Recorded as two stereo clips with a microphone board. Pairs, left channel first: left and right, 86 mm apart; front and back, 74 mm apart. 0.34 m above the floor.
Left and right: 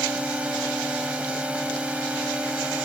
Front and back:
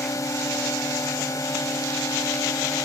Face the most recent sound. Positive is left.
turn(degrees=-15)